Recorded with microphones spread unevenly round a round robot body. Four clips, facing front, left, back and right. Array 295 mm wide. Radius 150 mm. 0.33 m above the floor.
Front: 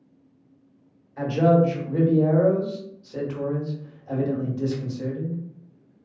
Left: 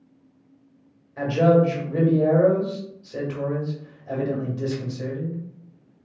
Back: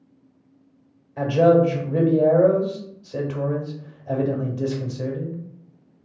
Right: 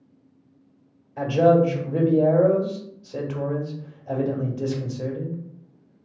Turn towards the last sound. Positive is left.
turn(degrees=-165)